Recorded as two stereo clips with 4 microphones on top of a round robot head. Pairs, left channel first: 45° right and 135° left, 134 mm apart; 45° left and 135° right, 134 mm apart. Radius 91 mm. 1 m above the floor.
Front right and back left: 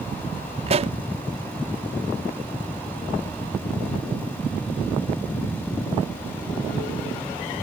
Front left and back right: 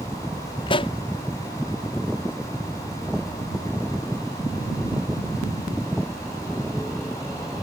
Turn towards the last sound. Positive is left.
turn(degrees=95)